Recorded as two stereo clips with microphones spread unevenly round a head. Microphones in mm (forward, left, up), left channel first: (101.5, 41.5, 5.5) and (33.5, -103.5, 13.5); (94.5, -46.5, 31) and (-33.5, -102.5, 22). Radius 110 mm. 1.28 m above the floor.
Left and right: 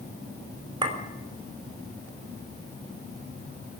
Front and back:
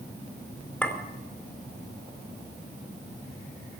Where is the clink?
55° right, 4.5 m.